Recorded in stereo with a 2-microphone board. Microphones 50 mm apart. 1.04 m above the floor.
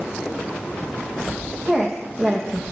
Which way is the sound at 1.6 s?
5° right (ahead or behind).